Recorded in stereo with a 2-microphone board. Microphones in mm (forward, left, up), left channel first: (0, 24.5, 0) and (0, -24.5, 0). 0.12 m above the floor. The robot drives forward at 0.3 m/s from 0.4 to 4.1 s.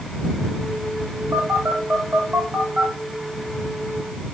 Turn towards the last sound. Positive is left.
turn(degrees=-35)  # may be behind; listen again after turning